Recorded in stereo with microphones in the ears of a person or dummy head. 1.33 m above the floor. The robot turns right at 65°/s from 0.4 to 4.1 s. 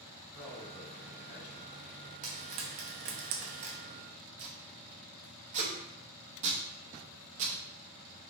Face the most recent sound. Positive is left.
turn(degrees=-40)  # may be behind; listen again after turning